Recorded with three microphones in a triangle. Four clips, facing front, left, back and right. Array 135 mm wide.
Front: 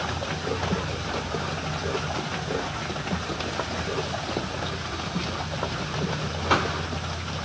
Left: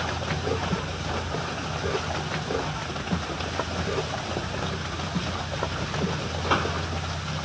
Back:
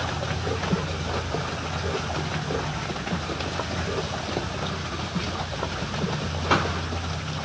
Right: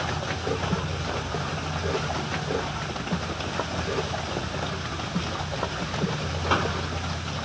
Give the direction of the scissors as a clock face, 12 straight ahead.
I don't hear scissors.